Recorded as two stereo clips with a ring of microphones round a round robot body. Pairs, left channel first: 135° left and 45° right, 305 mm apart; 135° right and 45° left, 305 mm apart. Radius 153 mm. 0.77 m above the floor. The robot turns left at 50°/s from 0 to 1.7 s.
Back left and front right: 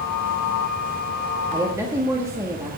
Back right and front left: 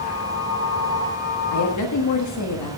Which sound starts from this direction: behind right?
A woman speaking, at 1.5 s.